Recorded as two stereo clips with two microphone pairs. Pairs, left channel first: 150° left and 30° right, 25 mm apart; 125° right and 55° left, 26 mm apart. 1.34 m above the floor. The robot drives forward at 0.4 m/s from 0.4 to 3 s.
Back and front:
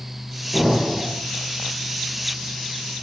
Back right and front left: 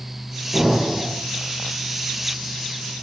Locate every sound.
0.5 s an explosion: 130° left, 1.3 m; by 1.1 s 140° left, 1.5 m